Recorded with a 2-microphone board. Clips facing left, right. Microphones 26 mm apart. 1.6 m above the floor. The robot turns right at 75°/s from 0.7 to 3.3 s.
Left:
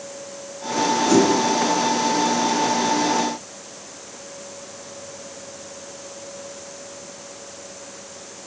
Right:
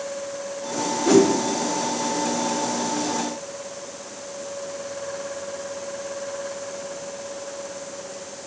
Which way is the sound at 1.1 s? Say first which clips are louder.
Right 2 dB; 75° right (ahead or behind).